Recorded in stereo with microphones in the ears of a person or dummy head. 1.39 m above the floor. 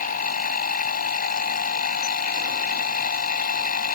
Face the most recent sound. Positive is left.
turn(degrees=50)  # may be behind; listen again after turning